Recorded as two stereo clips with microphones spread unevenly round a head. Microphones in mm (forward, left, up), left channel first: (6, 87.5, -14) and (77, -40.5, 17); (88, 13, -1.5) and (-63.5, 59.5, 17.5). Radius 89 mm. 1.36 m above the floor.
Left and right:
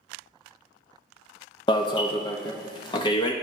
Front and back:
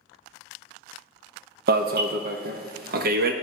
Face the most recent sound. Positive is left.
turn(degrees=160)